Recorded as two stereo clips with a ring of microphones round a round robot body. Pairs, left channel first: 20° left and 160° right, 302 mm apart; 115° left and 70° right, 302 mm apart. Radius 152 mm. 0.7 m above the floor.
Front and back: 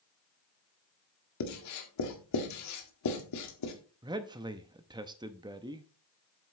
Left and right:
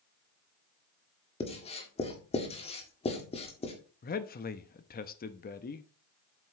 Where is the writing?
45° left, 1.7 m.